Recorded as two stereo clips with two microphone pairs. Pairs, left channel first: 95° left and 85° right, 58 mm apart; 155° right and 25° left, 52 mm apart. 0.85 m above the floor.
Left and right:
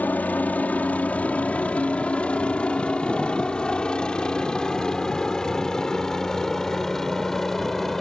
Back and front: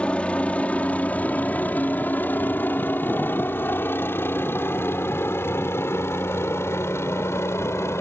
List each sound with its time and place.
0.0 s a helicopter: 145° left; by 8.0 s straight behind